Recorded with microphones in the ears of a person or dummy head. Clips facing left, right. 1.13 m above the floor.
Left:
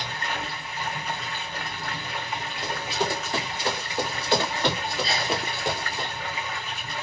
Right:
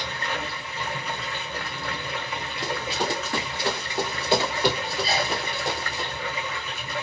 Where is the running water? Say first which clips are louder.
Right 1 dB; 70° right (ahead or behind), 1.7 m.